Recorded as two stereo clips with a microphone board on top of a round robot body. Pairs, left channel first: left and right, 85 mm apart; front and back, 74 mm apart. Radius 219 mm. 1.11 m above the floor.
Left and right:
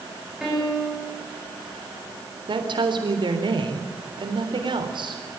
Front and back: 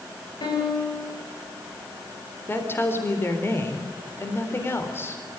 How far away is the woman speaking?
About 3.5 m.